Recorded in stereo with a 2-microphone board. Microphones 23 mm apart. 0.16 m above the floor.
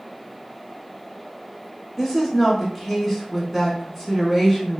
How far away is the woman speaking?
About 1.1 m.